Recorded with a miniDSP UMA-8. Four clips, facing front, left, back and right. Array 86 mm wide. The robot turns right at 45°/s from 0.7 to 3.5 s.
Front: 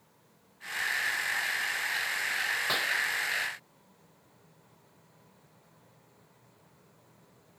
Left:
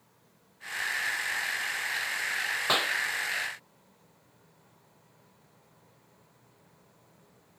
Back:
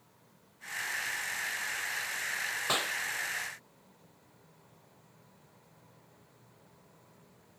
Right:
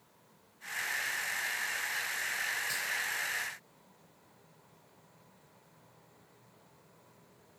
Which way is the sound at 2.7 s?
100° left.